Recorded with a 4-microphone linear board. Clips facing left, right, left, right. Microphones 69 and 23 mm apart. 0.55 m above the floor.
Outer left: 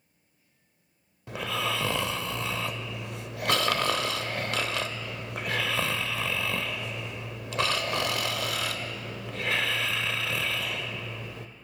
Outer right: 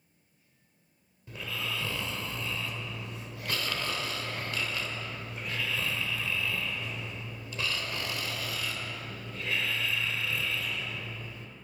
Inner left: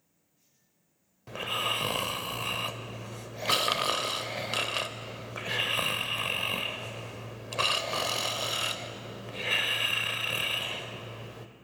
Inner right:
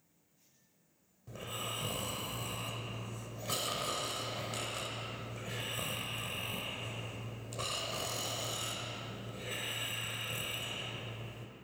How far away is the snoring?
About 0.5 m.